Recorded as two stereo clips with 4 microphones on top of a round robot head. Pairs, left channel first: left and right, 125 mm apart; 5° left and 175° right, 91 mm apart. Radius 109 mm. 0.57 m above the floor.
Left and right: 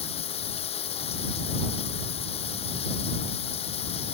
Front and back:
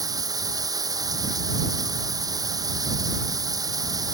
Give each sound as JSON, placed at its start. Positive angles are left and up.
{"t": 0.0, "sound": "running water", "azimuth_deg": 140}